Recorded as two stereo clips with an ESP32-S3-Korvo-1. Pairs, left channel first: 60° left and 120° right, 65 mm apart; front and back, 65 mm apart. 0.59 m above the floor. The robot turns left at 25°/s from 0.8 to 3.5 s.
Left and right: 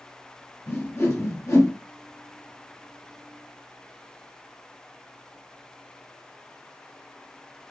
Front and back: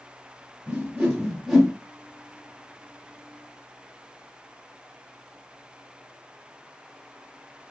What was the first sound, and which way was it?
A whoosh, 115° left.